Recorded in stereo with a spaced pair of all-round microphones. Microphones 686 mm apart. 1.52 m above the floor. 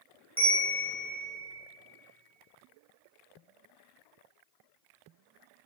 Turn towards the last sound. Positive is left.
turn(degrees=0)  # may be behind; listen again after turning